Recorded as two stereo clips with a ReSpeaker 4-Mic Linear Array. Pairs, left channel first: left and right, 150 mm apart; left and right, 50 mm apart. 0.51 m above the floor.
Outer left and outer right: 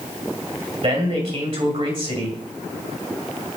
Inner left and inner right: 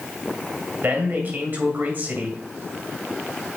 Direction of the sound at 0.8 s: 45° right (ahead or behind).